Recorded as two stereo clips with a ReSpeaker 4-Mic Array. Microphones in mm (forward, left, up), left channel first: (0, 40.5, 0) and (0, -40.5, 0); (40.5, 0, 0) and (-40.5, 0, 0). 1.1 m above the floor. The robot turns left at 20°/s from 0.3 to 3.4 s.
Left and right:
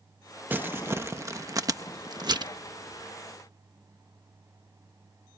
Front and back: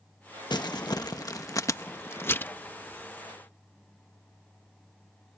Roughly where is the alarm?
I don't hear an alarm.